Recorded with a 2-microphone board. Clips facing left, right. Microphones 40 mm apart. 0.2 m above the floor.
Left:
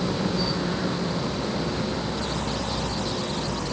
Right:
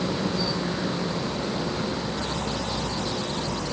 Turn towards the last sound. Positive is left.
No sound to turn to.